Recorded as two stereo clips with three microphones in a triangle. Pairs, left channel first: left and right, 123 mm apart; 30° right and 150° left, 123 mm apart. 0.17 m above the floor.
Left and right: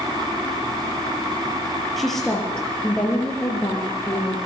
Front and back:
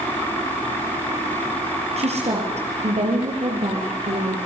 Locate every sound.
2.0 s a woman speaking: straight behind, 5 m; by 4.4 s 155° left, 5 m